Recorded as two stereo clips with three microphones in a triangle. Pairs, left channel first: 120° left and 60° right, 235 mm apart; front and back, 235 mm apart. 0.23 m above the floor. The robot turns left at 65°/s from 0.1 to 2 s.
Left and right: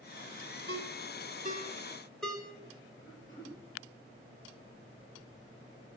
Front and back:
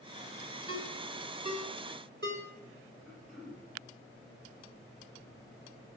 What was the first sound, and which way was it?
A ringtone, 65° right.